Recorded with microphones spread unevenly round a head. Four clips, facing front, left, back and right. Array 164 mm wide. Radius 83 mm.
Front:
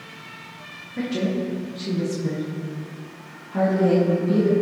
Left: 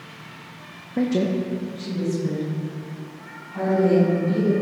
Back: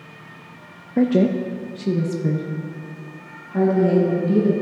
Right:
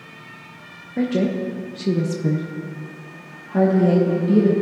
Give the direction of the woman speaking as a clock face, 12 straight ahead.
6 o'clock.